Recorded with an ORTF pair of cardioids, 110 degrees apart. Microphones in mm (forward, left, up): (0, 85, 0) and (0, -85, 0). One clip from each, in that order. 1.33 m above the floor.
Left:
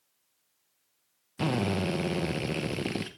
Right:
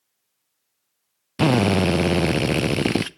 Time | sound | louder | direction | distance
1.4 | a drill | right 11 dB | 55° right | 0.7 m